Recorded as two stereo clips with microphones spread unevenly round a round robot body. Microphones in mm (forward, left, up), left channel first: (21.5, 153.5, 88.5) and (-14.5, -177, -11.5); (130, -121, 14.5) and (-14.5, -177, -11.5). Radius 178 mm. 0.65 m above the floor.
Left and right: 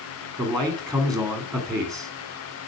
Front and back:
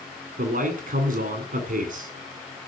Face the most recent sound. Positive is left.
turn(degrees=180)